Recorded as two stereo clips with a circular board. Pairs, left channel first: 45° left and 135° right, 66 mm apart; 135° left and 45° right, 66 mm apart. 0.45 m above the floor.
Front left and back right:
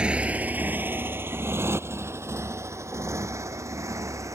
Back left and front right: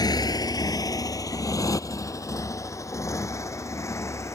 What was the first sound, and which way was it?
A motorcycle, 150° left.